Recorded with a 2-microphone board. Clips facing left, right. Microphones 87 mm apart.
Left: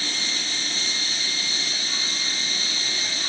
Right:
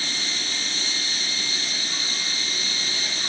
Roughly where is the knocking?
I don't hear knocking.